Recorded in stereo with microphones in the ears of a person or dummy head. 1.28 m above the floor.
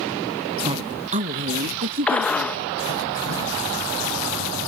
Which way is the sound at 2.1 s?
10° left (ahead or behind).